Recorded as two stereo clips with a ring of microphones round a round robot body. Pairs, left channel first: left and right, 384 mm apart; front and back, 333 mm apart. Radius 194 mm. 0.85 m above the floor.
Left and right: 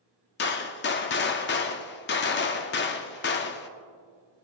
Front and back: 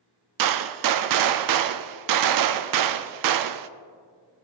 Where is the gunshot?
155° left, 0.5 m.